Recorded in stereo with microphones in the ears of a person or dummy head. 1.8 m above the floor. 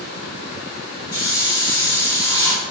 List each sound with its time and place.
1.1 s a hiss: 25° left (ahead or behind), 3 m